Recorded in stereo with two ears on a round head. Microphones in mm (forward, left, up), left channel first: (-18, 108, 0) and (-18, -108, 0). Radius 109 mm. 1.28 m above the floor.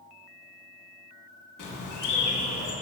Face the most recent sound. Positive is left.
turn(degrees=50)  # may be behind; listen again after turning